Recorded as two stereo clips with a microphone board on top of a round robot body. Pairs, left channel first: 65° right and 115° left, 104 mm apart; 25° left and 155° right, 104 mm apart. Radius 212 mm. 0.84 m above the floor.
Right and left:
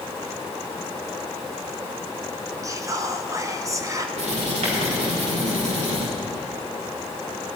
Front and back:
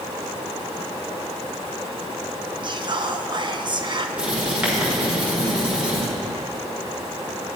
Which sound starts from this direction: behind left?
Writing, at 4.2 s.